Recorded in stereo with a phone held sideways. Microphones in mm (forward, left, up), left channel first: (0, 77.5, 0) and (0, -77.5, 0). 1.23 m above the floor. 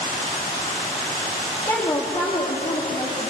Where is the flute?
No flute in this recording.